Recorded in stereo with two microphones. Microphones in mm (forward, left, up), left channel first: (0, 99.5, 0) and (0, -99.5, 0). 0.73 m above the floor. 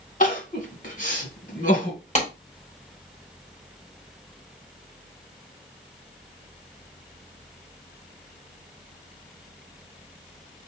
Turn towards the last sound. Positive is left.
turn(degrees=35)  # may be behind; listen again after turning